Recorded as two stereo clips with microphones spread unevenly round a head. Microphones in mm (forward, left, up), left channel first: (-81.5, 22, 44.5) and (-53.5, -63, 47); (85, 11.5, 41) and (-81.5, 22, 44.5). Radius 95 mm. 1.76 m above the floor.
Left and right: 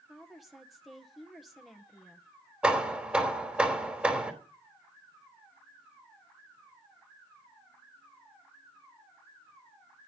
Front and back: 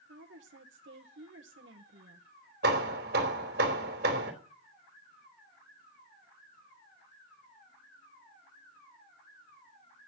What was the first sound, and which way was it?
A woman speaking, 160° right.